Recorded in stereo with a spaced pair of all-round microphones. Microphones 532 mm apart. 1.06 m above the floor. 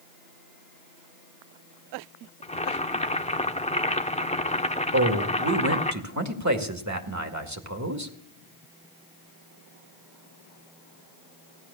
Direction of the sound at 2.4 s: 15° left (ahead or behind).